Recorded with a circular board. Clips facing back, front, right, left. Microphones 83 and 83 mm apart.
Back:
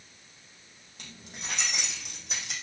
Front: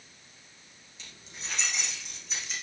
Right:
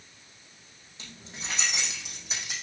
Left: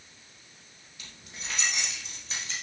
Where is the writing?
I don't hear writing.